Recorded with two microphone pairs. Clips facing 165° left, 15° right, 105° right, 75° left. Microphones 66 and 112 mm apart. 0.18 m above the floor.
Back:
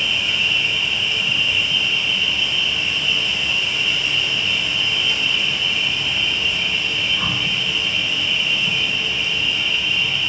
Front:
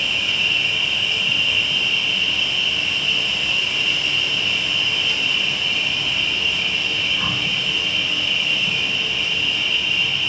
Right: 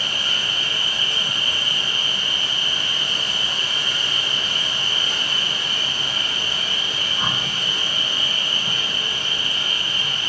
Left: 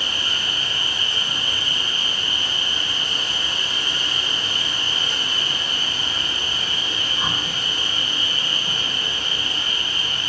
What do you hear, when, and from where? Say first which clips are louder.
0.0 s an insect: back 1 dB, even; 125° right, 0.9 m